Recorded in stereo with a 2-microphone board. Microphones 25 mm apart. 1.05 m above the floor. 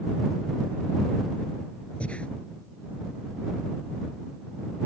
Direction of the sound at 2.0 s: 60° left (ahead or behind).